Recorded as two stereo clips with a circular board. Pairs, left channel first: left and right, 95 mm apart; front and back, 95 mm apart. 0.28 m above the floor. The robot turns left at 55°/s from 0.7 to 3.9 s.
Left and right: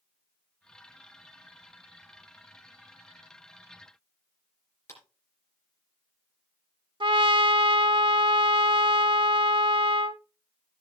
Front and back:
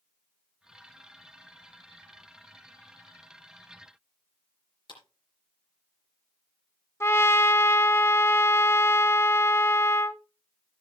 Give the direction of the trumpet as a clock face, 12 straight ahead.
2 o'clock.